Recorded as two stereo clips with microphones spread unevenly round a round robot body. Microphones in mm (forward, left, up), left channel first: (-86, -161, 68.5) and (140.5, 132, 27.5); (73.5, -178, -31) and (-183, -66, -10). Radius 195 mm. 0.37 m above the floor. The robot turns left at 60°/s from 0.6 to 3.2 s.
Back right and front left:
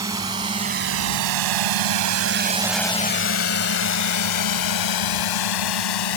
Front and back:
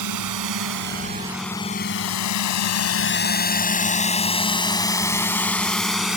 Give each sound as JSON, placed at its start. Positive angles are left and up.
{"t": 0.0, "sound": "a drone", "azimuth_deg": 130}